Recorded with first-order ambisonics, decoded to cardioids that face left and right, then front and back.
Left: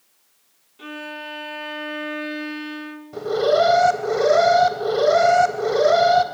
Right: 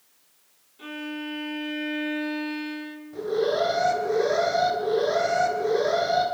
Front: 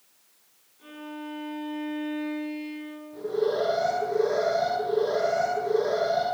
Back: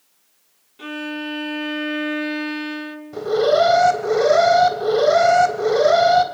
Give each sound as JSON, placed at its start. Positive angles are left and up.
{"t": 0.8, "sound": "a violin", "azimuth_deg": 165, "distance_m": 3.0}
{"t": 3.1, "sound": "an alarm", "azimuth_deg": 145, "distance_m": 3.5}